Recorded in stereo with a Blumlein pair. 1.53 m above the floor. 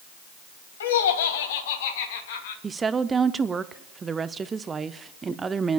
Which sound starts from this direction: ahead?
A woman speaking, at 2.6 s.